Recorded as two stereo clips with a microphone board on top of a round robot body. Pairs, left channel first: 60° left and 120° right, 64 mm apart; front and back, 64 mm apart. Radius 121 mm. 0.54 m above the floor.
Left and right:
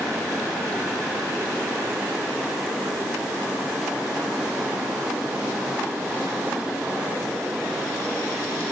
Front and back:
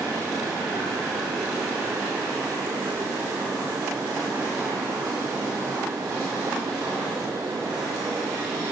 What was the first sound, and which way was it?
Only background noise.